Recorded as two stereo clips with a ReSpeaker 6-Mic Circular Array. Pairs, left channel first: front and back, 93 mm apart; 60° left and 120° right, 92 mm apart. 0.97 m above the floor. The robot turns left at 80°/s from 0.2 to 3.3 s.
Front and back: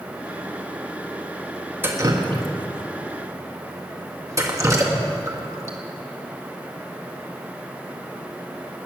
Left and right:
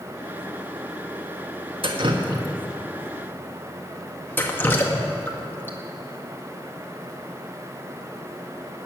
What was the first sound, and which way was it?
Dripping, 115° right.